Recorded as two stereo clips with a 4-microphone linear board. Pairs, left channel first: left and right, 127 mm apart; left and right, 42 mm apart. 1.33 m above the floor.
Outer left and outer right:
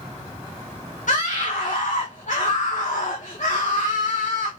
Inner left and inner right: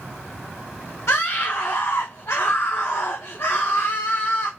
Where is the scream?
65° left (ahead or behind), 0.8 m.